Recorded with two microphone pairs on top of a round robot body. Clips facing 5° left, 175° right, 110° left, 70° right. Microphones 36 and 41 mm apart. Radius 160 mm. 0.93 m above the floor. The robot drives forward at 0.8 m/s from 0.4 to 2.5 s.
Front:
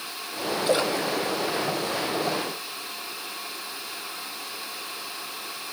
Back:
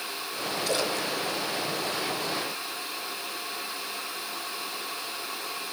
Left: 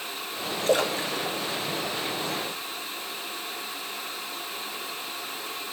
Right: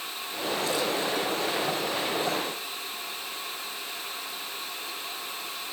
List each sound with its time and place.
0.7 s a splash: 65° left, 2 m; by 2.7 s 110° left, 2 m